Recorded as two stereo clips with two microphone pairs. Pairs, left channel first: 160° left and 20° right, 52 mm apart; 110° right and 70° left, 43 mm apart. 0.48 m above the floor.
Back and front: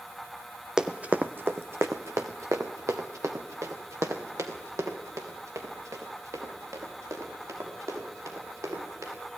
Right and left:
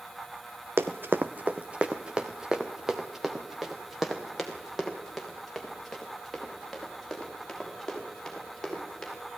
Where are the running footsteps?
55° left, 1.1 m; by 9.1 s 25° right, 8 m.